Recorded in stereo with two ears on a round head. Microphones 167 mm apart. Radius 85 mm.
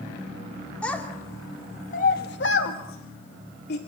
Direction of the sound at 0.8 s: 5° left (ahead or behind).